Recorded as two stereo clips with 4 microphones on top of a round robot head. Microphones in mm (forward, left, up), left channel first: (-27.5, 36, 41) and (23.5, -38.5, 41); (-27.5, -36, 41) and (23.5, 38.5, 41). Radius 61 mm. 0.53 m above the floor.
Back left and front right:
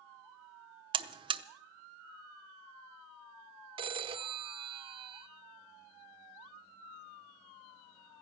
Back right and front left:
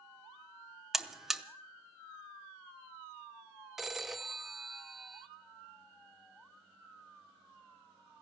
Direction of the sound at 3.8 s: 30° right.